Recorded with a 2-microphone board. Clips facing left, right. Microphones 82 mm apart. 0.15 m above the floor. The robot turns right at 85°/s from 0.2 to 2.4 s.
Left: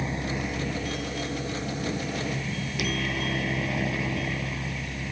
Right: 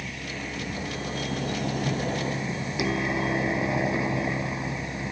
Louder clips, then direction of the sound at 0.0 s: Left 5 dB; 145° left.